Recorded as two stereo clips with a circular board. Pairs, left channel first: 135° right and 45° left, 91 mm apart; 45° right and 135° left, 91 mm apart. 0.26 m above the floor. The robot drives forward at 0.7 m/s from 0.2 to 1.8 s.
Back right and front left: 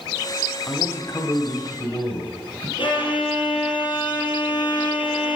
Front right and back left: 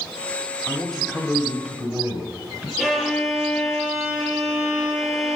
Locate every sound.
0.7 s a man speaking: 105° right, 0.9 m; by 2.7 s 155° right, 1.3 m
2.8 s a violin: 145° right, 3 m